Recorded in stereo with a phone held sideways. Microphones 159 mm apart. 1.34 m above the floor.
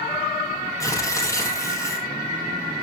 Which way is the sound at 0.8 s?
20° left (ahead or behind).